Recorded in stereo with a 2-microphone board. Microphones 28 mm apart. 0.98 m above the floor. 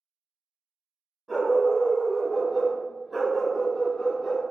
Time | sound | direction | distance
1.3 | a dog barking | 5° left (ahead or behind) | 1.1 m